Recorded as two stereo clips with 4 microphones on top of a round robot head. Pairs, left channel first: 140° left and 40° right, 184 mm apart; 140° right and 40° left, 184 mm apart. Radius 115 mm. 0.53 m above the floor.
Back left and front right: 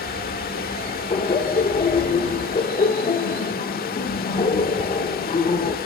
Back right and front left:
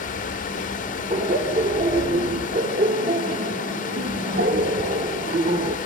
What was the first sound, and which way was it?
Running water, 175° left.